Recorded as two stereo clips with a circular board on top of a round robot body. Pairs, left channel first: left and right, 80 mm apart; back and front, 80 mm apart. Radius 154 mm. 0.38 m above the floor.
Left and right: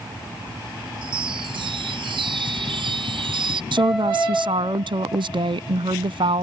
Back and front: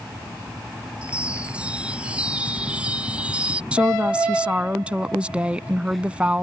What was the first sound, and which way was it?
A chime, 75° right.